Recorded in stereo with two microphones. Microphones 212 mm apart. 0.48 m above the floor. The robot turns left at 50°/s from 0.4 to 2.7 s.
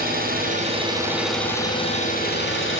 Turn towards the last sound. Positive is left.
turn(degrees=110)